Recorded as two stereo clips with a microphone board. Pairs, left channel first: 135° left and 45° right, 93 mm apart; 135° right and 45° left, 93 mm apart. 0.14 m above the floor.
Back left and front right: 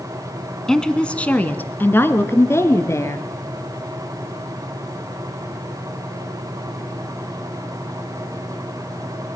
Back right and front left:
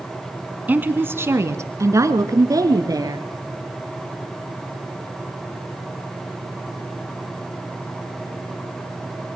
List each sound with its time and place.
0.7 s a woman speaking: 60° left, 1.3 m; by 3.3 s 85° left, 2.5 m